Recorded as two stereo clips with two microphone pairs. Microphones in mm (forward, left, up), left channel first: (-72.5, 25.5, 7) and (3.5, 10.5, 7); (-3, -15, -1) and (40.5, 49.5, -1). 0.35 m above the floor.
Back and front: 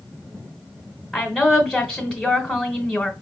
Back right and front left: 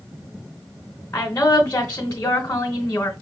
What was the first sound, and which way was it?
A woman speaking, 95° right.